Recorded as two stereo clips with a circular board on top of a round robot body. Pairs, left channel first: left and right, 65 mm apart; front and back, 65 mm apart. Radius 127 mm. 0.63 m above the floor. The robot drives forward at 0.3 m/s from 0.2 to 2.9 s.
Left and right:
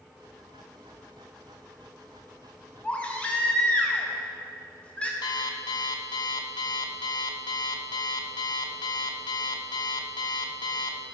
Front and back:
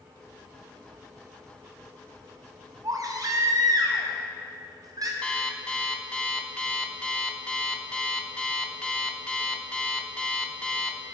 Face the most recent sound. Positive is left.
turn(degrees=75)